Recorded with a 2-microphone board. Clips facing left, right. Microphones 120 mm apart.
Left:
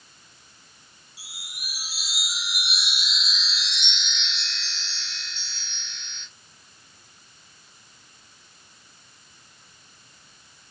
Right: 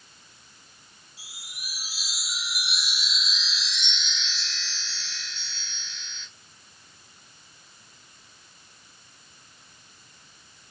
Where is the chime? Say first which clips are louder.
Left 2 dB; 70° left (ahead or behind), 2 m.